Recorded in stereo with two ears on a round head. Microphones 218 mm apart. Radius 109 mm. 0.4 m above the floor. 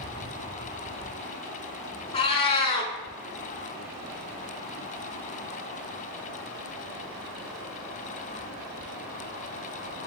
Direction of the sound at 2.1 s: 25° left (ahead or behind).